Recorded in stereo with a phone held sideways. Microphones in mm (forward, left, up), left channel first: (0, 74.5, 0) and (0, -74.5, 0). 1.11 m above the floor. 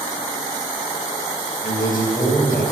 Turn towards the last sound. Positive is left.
turn(degrees=70)  # may be behind; listen again after turning